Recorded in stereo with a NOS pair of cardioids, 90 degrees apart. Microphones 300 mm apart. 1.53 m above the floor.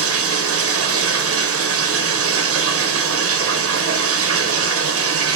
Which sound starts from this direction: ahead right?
Running water, at 0.0 s.